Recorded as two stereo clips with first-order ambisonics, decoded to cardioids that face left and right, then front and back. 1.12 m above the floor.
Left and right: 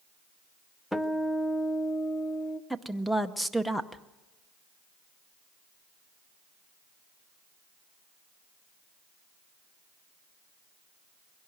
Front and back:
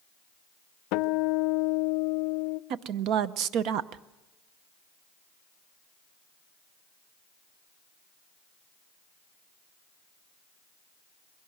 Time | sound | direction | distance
0.9 | a guitar | 5° left | 0.6 m
2.7 | a woman speaking | 175° left | 0.7 m